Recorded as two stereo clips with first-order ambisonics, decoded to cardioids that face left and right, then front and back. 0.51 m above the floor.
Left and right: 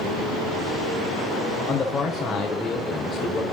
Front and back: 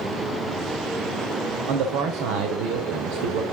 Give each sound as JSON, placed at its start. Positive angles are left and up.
{"t": 1.7, "sound": "a man speaking", "azimuth_deg": 160, "distance_m": 1.5}